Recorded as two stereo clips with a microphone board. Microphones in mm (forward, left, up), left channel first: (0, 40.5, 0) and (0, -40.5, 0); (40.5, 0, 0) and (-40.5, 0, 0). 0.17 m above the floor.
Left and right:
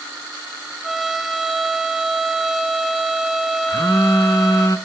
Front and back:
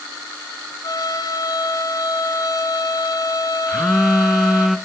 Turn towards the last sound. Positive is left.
turn(degrees=95)